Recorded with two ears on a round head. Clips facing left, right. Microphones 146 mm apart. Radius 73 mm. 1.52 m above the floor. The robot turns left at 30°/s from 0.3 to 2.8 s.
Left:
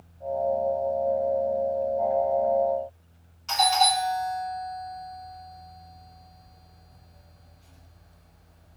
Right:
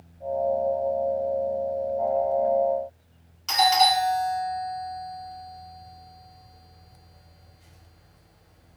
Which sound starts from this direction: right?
A doorbell, at 3.5 s.